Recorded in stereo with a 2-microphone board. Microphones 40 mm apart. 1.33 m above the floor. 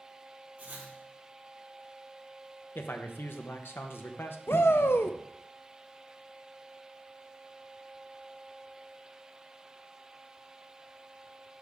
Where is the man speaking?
65° left (ahead or behind), 0.9 m.